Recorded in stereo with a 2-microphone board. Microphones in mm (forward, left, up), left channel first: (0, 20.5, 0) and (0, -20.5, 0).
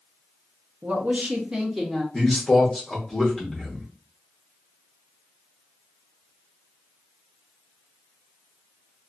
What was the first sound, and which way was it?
A woman speaking, 45° right (ahead or behind).